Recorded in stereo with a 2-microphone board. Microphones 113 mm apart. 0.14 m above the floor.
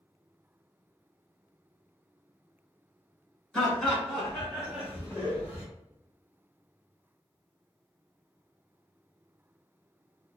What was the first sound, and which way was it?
Laughter, 5° left (ahead or behind).